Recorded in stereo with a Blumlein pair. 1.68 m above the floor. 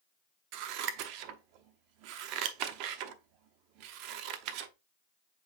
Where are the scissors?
40° right, 0.7 m.